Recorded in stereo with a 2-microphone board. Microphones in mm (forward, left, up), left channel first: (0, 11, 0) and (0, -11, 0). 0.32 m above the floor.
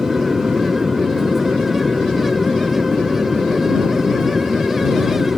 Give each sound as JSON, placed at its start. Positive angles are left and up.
{"t": 0.0, "sound": "an aircraft", "side_deg": -40}